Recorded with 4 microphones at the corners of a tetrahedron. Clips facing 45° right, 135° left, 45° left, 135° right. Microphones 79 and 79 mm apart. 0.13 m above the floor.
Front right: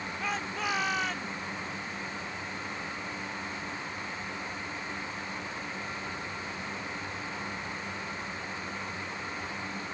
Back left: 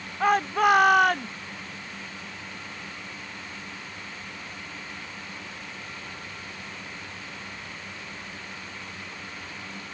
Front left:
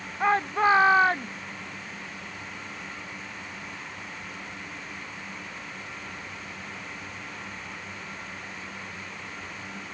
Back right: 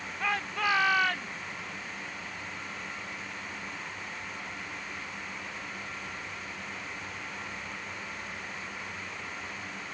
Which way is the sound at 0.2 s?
100° left.